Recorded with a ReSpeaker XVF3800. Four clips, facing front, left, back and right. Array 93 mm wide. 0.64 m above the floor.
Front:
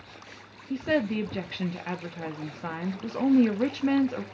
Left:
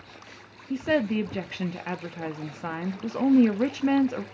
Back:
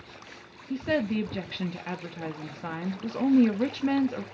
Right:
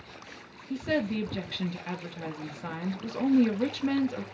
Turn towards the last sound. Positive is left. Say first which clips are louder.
# left 4 dB, front 1 dB
turn(degrees=85)